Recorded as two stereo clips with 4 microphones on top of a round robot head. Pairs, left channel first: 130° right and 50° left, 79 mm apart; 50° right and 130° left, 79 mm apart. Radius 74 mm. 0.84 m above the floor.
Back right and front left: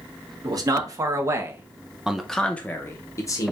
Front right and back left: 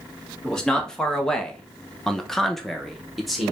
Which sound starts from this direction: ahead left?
A man speaking, at 0.4 s.